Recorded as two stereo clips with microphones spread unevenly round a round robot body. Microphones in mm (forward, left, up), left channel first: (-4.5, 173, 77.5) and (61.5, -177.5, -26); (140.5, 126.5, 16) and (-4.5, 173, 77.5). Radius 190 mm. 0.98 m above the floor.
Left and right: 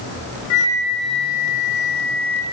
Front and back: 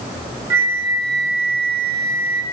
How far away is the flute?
About 1.3 m.